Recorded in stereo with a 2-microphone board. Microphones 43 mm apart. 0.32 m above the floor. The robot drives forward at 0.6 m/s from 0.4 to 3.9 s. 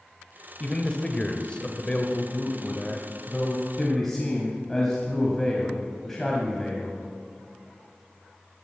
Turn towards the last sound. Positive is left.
turn(degrees=15)  # may be behind; listen again after turning